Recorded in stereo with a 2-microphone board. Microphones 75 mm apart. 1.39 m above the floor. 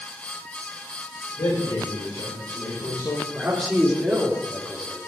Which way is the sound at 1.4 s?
80° left.